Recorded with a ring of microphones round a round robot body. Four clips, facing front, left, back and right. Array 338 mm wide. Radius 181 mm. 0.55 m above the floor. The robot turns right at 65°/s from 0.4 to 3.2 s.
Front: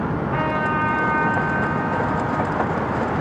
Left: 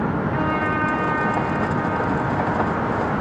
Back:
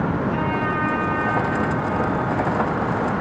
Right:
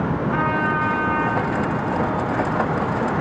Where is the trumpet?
80° right, 5.5 m; by 3.1 s 95° left, 5.5 m.